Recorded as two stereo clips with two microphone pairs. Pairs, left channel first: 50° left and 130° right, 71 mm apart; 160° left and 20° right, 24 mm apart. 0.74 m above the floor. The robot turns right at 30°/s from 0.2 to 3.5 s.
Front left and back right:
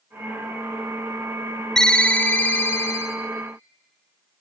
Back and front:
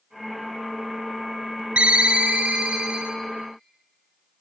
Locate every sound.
1.8 s a ringtone: 30° right, 0.7 m; by 3.2 s 10° left, 0.7 m